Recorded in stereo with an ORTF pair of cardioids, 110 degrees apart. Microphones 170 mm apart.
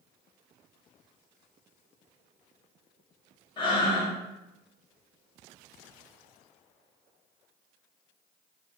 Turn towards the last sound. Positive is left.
turn(degrees=25)